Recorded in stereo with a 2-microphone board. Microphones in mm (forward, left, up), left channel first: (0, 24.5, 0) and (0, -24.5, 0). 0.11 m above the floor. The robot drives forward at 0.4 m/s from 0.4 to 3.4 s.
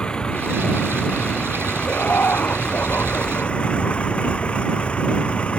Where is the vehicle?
20° left (ahead or behind); by 5.6 s 25° left (ahead or behind).